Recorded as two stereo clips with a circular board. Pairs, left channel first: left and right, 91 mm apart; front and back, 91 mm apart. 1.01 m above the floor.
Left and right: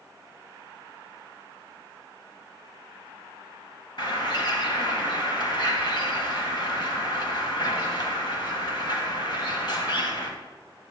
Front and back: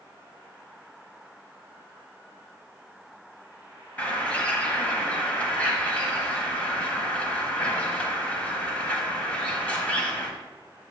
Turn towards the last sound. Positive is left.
turn(degrees=75)